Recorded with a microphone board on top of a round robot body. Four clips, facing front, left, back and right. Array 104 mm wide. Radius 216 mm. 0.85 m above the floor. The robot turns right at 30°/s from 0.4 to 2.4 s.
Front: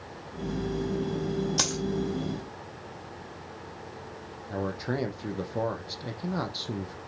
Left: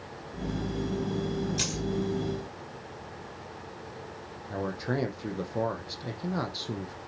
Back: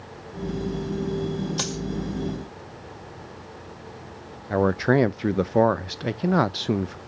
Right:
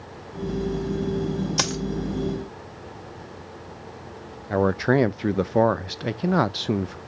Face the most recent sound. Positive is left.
turn(degrees=-135)